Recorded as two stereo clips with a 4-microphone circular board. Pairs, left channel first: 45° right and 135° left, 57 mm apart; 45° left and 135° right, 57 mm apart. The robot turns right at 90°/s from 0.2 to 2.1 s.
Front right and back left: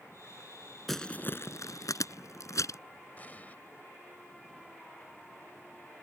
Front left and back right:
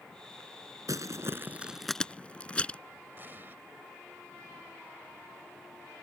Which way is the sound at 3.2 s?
95° right.